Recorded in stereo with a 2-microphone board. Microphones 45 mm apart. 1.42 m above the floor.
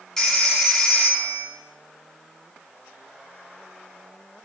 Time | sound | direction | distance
0.2 | a phone ringing | 10° left (ahead or behind) | 2.5 m